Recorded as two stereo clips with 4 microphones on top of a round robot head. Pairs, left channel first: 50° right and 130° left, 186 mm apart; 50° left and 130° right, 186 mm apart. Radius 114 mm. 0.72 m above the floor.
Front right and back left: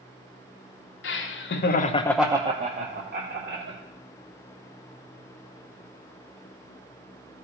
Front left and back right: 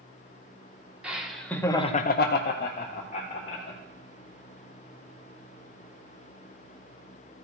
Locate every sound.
1.0 s laughter: 50° right, 1.6 m; by 3.8 s 100° left, 2.5 m